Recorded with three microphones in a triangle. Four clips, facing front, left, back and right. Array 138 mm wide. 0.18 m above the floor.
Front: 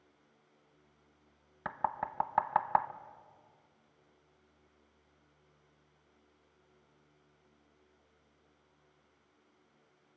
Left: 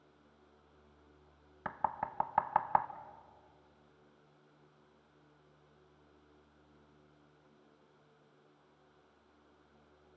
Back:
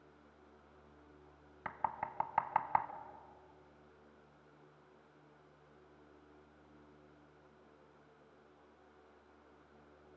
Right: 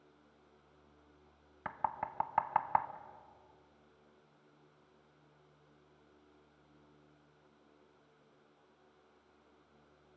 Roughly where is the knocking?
Ahead.